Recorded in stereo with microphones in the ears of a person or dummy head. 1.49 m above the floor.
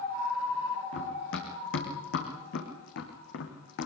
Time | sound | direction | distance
0.9 | running footsteps | 75° left (ahead or behind) | 5.5 m